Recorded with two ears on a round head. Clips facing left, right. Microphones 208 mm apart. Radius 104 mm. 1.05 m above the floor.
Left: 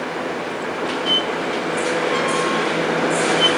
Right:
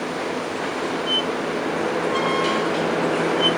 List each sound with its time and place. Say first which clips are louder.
1.1 s a squeak: left 1 dB; 85° left, 3.5 m